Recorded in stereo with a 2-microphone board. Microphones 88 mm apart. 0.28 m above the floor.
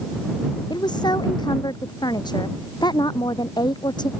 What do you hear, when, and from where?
0.7 s a woman speaking: 50° left (ahead or behind)